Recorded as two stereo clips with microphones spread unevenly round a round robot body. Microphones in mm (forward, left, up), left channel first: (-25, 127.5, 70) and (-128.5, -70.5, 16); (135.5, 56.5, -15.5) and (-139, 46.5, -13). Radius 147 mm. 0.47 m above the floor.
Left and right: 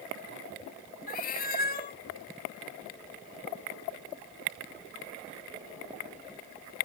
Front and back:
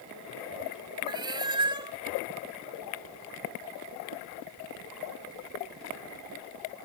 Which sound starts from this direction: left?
A cat meowing, at 1.1 s.